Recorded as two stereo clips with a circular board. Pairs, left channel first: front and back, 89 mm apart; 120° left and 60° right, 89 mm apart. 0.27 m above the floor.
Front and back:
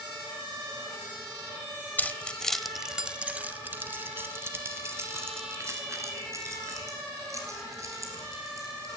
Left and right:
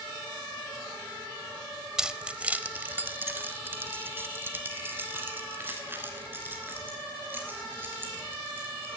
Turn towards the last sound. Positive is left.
turn(degrees=-130)